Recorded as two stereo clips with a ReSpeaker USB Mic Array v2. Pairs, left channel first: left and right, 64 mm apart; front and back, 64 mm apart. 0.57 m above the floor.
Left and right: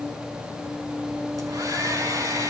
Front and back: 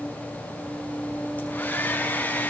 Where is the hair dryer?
65° right, 5.5 m.